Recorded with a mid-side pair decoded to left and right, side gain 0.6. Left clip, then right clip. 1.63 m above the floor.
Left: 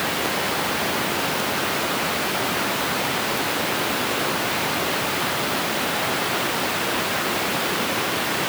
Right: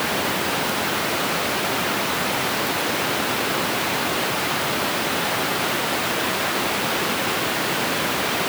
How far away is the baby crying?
I don't hear a baby crying.